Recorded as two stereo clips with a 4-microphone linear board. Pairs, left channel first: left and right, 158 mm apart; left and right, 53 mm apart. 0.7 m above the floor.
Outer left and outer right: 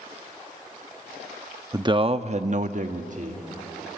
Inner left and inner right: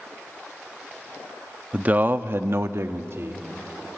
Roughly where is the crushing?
No crushing in this recording.